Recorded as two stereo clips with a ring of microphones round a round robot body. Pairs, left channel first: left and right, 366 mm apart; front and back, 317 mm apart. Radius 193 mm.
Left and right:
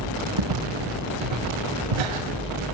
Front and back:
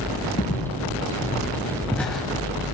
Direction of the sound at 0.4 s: 70° right.